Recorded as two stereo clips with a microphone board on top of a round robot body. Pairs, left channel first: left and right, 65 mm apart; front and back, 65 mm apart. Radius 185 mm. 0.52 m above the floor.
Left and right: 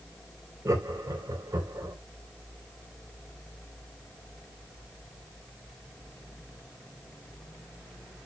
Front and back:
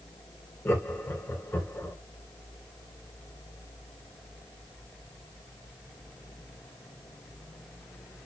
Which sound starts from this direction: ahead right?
Laughter, at 0.7 s.